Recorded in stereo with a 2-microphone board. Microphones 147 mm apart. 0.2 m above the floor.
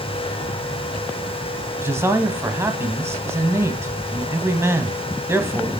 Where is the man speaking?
20° right (ahead or behind), 1.0 m.